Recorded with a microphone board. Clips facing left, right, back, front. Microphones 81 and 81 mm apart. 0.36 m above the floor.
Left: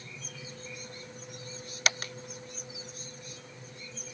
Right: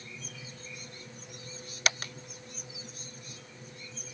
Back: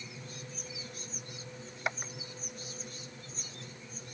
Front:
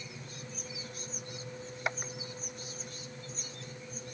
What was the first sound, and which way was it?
Only background noise.